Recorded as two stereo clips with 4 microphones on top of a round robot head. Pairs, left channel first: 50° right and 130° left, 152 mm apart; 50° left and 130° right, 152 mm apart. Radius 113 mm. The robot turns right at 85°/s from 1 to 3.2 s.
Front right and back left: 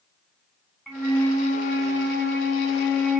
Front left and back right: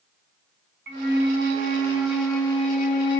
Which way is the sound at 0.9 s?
145° right.